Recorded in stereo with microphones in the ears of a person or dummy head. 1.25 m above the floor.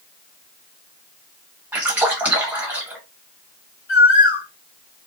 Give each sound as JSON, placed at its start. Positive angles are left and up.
{"t": 1.7, "sound": "a splash", "side_deg": -5, "distance_m": 0.6}
{"t": 3.9, "sound": "a bird", "side_deg": 60, "distance_m": 1.6}